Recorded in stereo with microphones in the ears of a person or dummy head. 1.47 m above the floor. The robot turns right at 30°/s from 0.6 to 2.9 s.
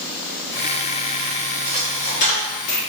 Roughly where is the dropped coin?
Left.